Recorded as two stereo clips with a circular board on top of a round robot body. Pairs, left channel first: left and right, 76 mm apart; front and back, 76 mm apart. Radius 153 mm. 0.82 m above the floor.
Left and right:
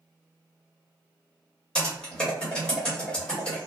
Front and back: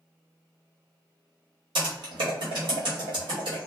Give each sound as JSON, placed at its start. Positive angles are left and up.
{"t": 1.8, "sound": "typing on a keyboard", "azimuth_deg": 170, "distance_m": 1.2}